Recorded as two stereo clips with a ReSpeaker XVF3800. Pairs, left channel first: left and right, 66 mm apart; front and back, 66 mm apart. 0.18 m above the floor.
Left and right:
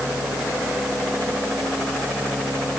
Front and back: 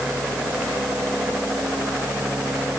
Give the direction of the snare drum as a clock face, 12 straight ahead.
No snare drum in this recording.